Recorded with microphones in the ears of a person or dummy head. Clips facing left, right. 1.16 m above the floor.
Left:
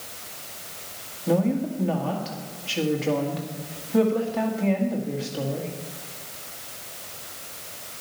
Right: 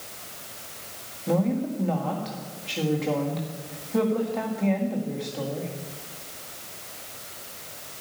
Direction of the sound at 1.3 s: 5° left (ahead or behind).